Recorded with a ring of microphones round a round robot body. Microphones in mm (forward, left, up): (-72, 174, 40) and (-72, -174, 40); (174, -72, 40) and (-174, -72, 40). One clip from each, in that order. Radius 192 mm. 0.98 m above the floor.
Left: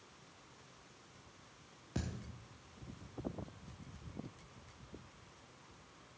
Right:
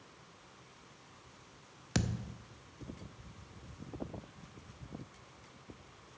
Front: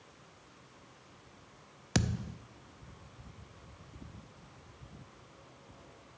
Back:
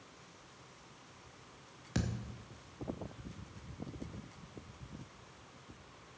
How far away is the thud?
About 0.5 m.